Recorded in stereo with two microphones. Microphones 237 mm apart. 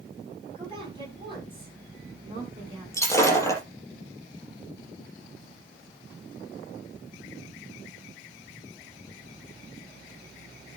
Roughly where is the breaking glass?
Centre.